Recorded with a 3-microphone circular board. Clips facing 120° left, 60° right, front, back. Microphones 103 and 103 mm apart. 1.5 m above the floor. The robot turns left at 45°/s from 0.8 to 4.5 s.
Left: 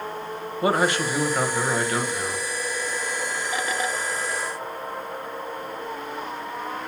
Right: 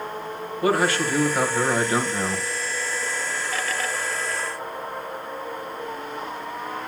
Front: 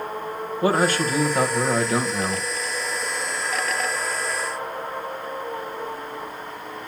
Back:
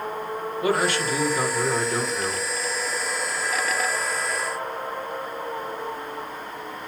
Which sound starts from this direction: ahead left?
A man speaking, at 0.6 s.